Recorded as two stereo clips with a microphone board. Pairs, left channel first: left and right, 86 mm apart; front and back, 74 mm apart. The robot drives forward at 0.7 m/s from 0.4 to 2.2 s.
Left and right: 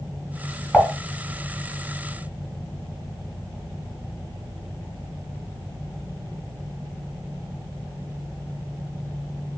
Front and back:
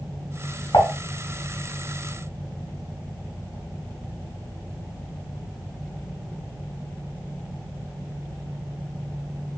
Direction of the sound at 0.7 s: 5° right.